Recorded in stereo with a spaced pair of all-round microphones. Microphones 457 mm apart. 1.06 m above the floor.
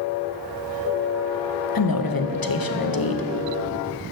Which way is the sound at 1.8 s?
50° left (ahead or behind).